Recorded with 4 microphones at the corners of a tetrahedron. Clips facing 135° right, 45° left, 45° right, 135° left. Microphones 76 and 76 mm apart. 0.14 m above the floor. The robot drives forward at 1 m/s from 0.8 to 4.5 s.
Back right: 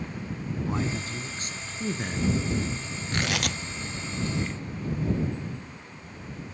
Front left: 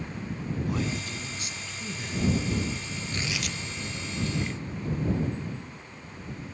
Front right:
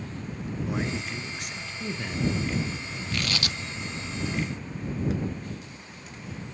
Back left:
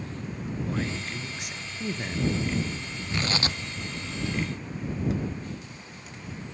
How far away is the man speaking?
About 1.6 m.